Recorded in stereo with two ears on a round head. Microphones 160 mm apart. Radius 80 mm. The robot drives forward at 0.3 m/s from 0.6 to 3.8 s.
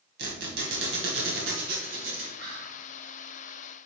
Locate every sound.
0.2 s a squeak: 65° right (ahead or behind), 2.5 m; by 2.3 s 55° right (ahead or behind), 2.5 m
2.4 s whispering: 70° right (ahead or behind), 3.5 m; by 2.8 s 65° right (ahead or behind), 3.5 m